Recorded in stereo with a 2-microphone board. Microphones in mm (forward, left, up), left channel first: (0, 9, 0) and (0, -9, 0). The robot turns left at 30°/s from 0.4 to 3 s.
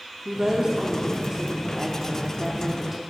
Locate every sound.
0.2 s a woman speaking: 90° right, 0.8 m; by 3.0 s 165° right, 0.8 m